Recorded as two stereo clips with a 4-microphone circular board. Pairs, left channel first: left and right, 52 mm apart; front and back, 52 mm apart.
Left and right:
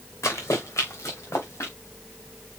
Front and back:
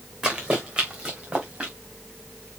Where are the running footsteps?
110° left, 3 m; by 1.7 s 120° left, 4 m.